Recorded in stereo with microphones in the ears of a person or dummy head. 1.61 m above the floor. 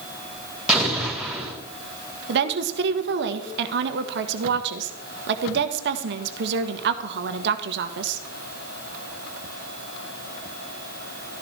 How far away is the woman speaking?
About 1.3 m.